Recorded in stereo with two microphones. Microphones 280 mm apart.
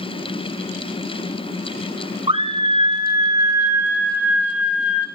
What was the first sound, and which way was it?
A scream, 20° right (ahead or behind).